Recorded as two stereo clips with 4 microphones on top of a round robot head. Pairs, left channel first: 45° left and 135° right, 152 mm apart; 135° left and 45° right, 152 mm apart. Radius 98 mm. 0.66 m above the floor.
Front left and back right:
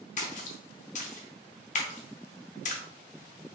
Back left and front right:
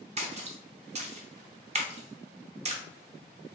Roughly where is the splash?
Ahead.